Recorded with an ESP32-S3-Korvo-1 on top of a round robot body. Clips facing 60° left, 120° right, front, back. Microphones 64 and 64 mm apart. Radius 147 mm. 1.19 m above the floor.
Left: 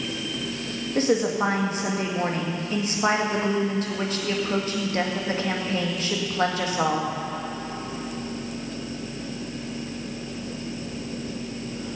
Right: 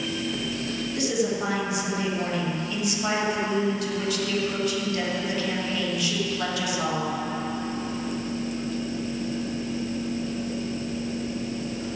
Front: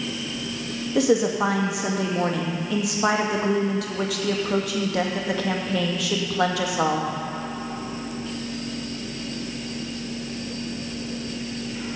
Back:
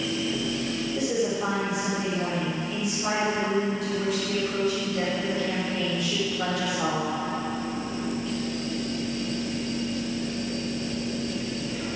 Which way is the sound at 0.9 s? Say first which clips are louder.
Left 5 dB, front 8 dB; 5° left.